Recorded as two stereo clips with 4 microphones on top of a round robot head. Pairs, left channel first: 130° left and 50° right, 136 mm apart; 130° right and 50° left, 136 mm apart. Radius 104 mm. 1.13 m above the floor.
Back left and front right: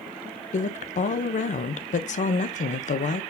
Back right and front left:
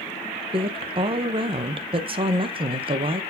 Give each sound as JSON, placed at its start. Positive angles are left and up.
{"t": 0.5, "sound": "a woman speaking", "azimuth_deg": 100, "distance_m": 0.9}